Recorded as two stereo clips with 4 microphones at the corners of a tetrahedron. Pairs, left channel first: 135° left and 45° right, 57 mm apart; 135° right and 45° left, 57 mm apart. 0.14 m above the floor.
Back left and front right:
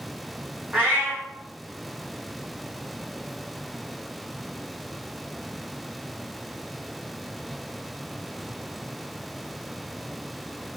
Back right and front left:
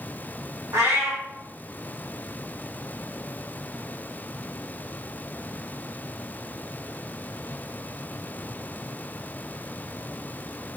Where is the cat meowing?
15° left, 3.5 m.